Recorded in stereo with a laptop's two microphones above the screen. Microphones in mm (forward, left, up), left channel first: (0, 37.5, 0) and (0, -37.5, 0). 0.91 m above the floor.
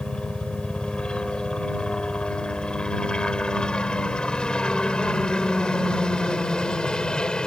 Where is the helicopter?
15° left (ahead or behind); by 7.5 s 10° left (ahead or behind).